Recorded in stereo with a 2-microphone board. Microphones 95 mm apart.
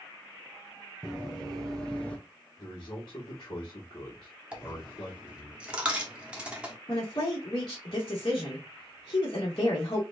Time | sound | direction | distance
1.0 | running footsteps | centre (ahead or behind) | 2 m
2.6 | a man speaking | 50° left (ahead or behind) | 1.4 m
4.5 | a dropped coin | 10° right (ahead or behind) | 1.0 m
6.9 | a woman speaking | 45° left (ahead or behind) | 1.6 m